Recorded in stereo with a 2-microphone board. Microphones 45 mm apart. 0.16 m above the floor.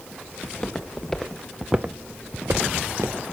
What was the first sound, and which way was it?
Footsteps, 25° left (ahead or behind).